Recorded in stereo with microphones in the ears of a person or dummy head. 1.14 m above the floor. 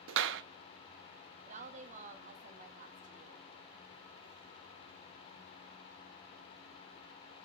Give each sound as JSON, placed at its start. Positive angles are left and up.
{"t": 0.1, "sound": "a clap", "side_deg": -70, "distance_m": 0.9}
{"t": 1.5, "sound": "a woman speaking", "side_deg": -40, "distance_m": 1.8}